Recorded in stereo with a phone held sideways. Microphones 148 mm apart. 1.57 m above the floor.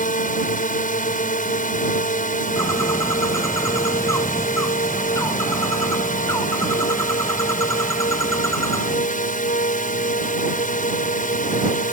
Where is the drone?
65° left (ahead or behind).